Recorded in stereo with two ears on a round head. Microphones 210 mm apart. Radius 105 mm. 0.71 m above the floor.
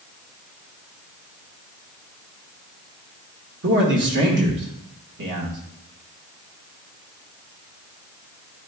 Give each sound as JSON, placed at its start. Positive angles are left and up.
{"t": 3.6, "sound": "a man speaking", "side_deg": -50, "distance_m": 1.6}